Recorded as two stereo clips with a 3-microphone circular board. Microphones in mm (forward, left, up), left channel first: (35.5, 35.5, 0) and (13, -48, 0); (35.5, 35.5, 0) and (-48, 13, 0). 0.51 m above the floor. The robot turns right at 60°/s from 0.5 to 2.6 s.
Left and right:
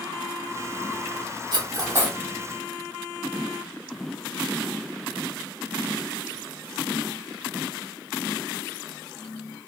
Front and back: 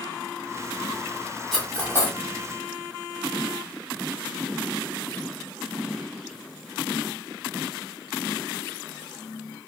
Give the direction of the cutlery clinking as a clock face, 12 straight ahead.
3 o'clock.